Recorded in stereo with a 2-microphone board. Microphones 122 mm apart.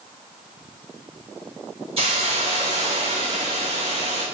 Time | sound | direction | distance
2.0 | a hiss | 50° right (ahead or behind) | 2.5 m